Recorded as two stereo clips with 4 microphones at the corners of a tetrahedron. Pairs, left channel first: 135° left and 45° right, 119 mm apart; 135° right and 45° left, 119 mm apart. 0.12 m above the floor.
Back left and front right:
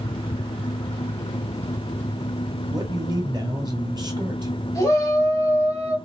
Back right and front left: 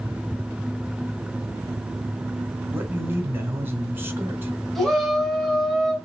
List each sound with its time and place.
2.7 s a man speaking: 20° right, 1.5 m
4.8 s a shout: 140° left, 1.6 m